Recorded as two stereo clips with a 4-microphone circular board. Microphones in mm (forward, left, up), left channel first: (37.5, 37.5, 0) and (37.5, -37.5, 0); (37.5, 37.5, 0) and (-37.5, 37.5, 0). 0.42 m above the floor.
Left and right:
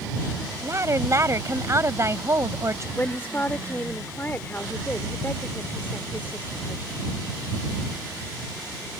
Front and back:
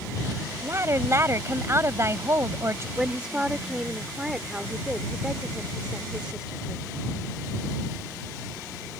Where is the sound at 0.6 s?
135° right.